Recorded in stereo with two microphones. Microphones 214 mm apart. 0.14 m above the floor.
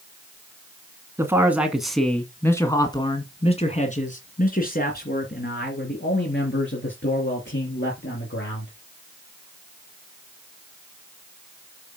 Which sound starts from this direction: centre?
A man speaking, at 1.2 s.